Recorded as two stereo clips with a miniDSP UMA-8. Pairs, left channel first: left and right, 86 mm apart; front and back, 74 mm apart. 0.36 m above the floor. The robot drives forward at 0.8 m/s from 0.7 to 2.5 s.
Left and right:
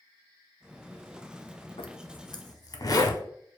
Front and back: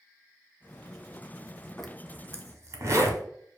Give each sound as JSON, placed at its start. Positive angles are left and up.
{"t": 1.8, "sound": "a zipper", "azimuth_deg": 80, "distance_m": 0.5}